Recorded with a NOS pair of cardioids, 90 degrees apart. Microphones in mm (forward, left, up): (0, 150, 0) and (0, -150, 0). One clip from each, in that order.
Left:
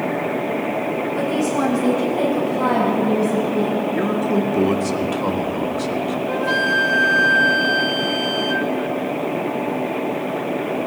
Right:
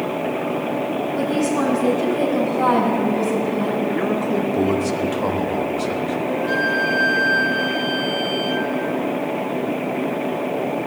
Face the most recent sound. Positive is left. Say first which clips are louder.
# left 2 dB
turn(degrees=40)